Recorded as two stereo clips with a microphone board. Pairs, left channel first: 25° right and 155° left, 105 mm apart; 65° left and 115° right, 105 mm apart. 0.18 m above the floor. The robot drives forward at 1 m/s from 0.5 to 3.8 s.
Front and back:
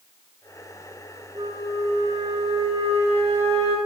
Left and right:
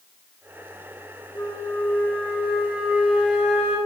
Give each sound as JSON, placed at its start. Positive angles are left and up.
{"t": 1.4, "sound": "a flute", "azimuth_deg": 115, "distance_m": 1.1}